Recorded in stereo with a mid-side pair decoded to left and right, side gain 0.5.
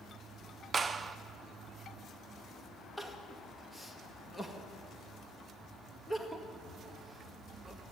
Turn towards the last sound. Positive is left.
turn(degrees=5)